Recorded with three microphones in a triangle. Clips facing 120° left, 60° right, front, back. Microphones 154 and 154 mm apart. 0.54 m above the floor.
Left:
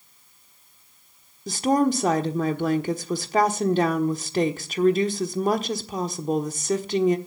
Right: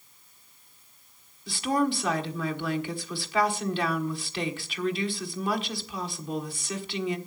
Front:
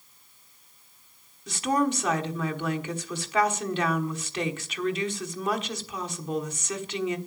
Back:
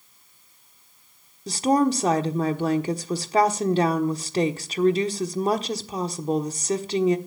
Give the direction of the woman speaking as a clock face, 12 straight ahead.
7 o'clock.